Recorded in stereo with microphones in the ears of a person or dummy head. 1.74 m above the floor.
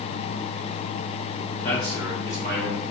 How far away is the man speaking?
About 1.0 m.